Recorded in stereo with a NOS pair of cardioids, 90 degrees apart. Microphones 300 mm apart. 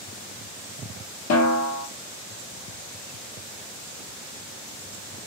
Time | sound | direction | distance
1.3 | a snare drum | 60° left | 0.9 m